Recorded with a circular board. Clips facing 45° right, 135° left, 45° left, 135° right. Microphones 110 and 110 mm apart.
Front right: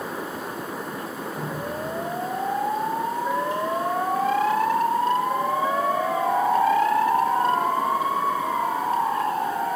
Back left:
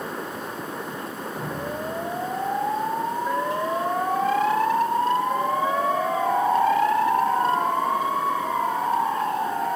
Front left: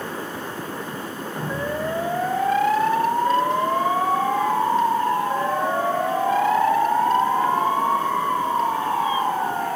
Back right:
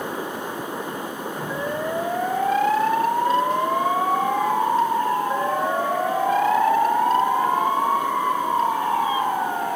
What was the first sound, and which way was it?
Dripping, 145° left.